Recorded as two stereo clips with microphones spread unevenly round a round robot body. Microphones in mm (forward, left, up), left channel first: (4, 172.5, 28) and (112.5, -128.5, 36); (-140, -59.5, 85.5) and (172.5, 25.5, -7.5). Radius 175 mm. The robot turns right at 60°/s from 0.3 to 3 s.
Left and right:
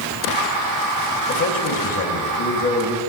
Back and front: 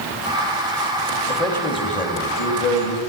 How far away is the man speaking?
About 2 m.